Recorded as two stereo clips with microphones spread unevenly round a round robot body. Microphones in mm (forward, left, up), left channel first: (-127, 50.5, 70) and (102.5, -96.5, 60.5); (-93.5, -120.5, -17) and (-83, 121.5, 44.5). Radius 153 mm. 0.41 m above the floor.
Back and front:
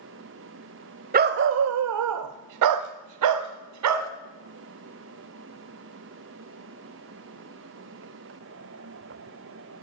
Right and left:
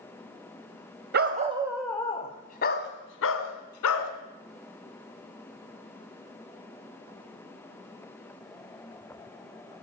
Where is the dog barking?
25° left, 0.7 m; by 4.1 s 55° right, 1.4 m.